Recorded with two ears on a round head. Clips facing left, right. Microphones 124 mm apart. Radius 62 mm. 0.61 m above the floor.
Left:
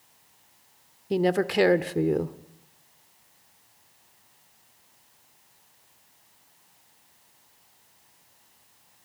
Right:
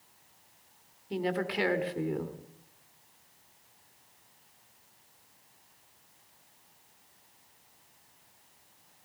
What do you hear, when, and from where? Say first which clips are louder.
1.1 s a woman speaking: left 8 dB; 55° left (ahead or behind), 1.5 m